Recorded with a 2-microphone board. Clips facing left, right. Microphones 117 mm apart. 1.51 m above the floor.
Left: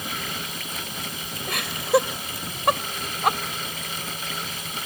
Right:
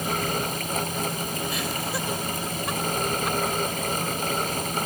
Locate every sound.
1.5 s laughter: 70° left (ahead or behind)